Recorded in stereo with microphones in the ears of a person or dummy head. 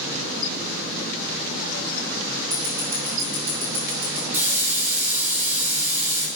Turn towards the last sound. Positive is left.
turn(degrees=-15)  # may be behind; listen again after turning